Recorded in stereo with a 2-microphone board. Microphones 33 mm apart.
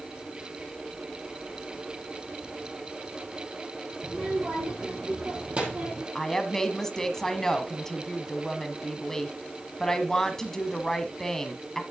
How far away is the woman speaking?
About 1.1 m.